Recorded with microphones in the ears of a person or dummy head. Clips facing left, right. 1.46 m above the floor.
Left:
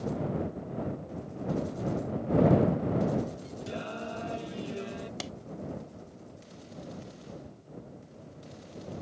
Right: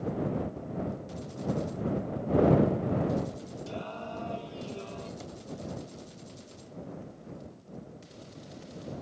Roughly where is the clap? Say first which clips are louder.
Left 3 dB; left.